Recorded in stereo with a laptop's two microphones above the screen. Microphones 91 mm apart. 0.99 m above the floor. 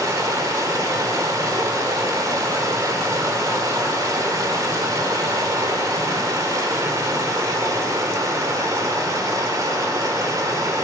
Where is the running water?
40° right (ahead or behind), 1.4 m.